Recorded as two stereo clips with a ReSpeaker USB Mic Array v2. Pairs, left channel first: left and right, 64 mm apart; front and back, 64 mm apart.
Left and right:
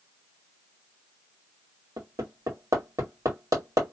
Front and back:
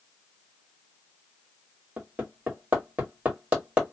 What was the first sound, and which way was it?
Hammering, 110° right.